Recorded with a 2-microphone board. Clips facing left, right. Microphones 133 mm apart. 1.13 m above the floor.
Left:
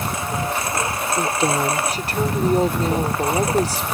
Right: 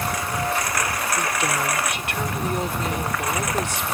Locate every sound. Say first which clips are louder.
0.0 s a lawn mower: left 1 dB; 25° left (ahead or behind); by 4.0 s 30° left (ahead or behind)
1.2 s a woman speaking: left 7 dB; 35° left (ahead or behind)